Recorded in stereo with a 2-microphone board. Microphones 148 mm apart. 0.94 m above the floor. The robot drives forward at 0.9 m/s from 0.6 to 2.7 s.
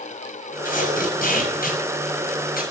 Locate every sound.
0.7 s tape being pulled: 60° left (ahead or behind), 7 m; by 2.6 s 75° left (ahead or behind), 6.5 m